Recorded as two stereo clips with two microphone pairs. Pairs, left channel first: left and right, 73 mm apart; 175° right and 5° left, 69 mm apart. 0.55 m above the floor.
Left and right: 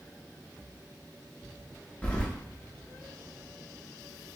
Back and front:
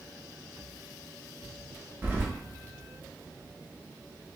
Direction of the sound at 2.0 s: 35° left.